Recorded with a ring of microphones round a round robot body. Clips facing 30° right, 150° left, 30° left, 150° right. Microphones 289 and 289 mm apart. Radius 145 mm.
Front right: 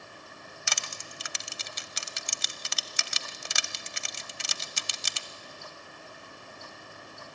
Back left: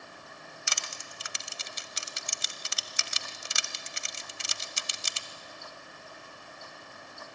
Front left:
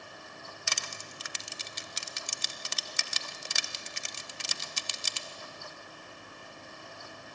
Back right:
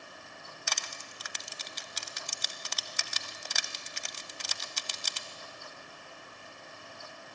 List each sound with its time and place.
0.7 s crushing: 30° right, 0.9 m